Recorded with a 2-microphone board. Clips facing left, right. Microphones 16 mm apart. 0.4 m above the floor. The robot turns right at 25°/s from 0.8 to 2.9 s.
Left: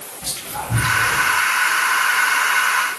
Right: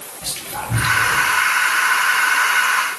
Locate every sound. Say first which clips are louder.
0.2 s whispering: right 1 dB; 45° right (ahead or behind), 1.6 m; by 1.3 s 35° right (ahead or behind), 1.6 m